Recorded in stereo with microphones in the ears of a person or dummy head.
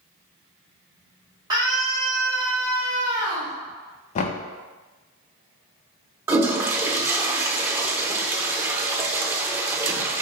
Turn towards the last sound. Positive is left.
turn(degrees=-15)  # may be behind; listen again after turning